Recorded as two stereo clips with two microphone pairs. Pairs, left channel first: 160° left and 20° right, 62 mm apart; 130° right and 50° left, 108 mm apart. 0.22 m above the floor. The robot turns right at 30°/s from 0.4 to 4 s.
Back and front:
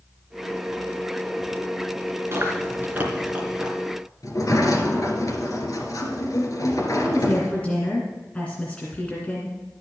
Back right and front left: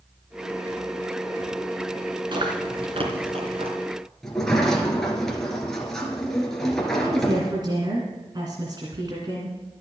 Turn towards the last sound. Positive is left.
turn(degrees=90)